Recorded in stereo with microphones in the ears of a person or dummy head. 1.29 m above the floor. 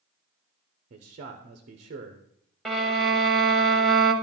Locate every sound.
0.9 s a man speaking: 35° right (ahead or behind), 0.7 m
2.6 s a violin: centre (ahead or behind), 0.7 m